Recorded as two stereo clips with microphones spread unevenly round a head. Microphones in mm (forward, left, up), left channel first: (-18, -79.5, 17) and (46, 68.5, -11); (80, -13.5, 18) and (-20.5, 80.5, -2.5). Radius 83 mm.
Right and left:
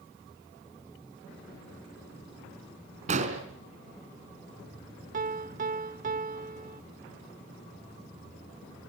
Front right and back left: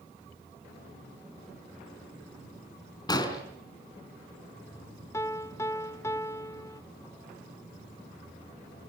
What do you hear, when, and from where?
3.1 s an explosion: 15° left, 4 m
5.1 s a piano: 20° left, 0.9 m